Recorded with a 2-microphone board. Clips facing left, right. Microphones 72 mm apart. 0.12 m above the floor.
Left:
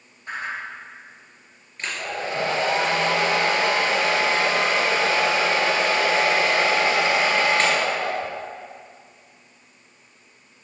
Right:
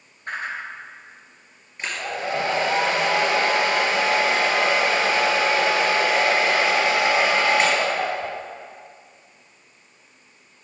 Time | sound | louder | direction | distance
0.3 | a whoosh | right 1 dB | 50° right (ahead or behind) | 2 m
1.8 | a hair dryer | right 1 dB | 20° right (ahead or behind) | 2.5 m